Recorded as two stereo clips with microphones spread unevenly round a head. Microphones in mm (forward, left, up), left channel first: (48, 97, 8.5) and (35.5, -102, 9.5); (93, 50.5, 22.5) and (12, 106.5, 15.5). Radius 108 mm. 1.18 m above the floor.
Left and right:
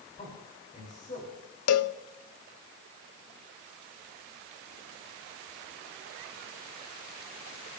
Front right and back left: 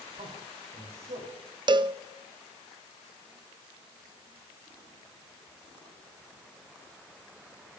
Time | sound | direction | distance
0.2 | a man speaking | 145° left | 4 m
1.7 | a cowbell | 100° left | 0.6 m